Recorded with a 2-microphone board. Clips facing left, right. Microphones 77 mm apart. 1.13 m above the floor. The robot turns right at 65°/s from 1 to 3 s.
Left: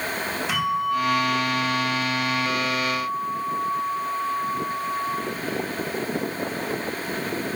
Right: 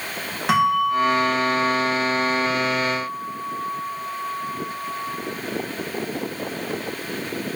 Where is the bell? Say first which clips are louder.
Right 6 dB; 85° right, 2 m; by 5.2 s 45° left, 2 m.